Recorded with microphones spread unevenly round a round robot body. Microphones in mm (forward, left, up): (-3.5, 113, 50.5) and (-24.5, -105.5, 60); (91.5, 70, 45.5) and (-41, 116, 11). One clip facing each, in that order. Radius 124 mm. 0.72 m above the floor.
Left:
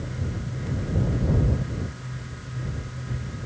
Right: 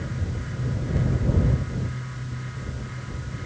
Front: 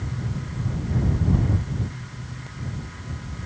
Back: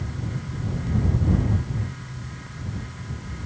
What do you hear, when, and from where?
Only background noise.